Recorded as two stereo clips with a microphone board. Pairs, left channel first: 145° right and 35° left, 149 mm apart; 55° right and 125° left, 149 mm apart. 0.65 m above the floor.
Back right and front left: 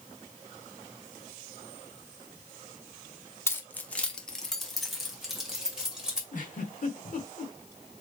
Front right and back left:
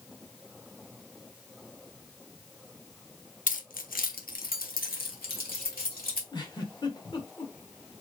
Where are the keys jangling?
75° right, 0.7 m; by 6.2 s 50° right, 2.0 m.